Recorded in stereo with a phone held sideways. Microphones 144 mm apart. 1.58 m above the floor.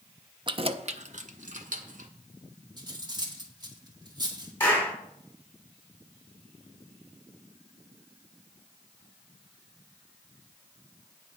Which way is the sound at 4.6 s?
15° left (ahead or behind).